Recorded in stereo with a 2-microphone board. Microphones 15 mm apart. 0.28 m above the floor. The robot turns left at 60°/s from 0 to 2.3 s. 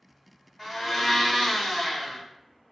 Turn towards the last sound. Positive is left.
turn(degrees=85)